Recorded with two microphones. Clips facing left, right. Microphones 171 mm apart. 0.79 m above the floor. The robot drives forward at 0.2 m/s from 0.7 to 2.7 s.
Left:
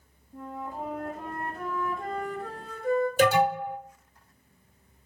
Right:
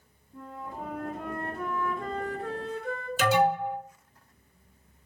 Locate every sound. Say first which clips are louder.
0.3 s a flute: left 3 dB; 45° left (ahead or behind), 1.7 m; by 3.1 s 50° left (ahead or behind), 1.6 m
3.2 s an alarm: right 2 dB; 55° left (ahead or behind), 2 m